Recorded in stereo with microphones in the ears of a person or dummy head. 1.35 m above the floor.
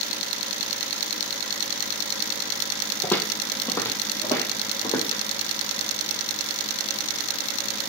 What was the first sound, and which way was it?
Footsteps, 15° left (ahead or behind).